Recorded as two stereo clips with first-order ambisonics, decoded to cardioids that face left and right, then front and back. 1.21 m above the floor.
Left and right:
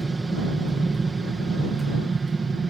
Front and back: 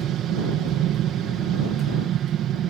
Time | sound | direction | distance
0.0 | an aircraft | 165° right | ?